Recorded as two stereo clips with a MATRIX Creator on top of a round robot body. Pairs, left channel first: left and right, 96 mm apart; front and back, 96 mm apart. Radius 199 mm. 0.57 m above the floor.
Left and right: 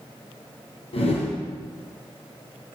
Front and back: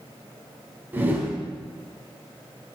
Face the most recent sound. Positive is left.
turn(degrees=110)